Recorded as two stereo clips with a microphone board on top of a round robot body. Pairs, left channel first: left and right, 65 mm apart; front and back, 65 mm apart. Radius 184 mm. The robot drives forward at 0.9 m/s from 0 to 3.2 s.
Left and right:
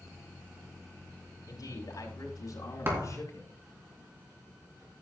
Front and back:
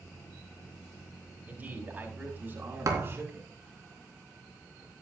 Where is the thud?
145° right, 3.5 m; by 3.2 s 150° right, 4 m.